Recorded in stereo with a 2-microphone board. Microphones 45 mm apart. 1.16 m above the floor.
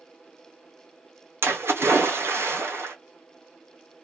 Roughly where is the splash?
Right.